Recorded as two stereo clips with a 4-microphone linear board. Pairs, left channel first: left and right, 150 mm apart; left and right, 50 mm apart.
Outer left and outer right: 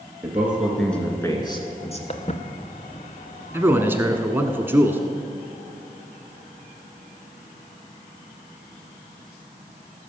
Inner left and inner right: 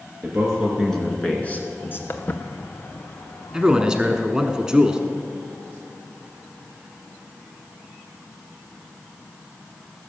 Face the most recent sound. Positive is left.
turn(degrees=-15)  # may be behind; listen again after turning